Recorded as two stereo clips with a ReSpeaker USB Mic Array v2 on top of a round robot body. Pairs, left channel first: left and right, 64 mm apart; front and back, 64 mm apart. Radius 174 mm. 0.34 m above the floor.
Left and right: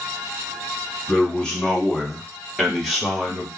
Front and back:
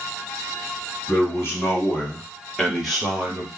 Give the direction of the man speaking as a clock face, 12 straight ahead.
11 o'clock.